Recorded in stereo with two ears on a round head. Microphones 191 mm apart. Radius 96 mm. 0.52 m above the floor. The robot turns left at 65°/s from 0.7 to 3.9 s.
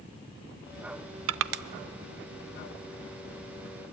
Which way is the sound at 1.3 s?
65° right (ahead or behind).